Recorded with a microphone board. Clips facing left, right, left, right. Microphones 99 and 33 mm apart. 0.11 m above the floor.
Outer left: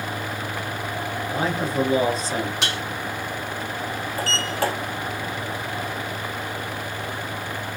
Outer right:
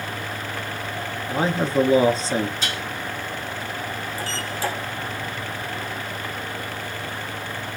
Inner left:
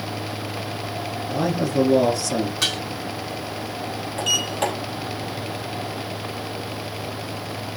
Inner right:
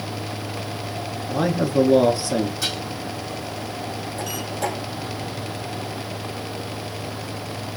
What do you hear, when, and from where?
1.3 s a man speaking: 30° right (ahead or behind), 1.3 m
2.6 s dishes clattering: 75° left (ahead or behind), 4.5 m
4.2 s a sliding door: 65° left (ahead or behind), 4 m